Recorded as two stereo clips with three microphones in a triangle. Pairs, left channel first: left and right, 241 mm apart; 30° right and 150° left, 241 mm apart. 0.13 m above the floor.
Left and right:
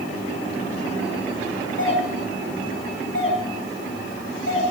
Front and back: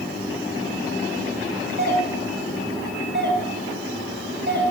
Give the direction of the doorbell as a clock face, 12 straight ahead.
8 o'clock.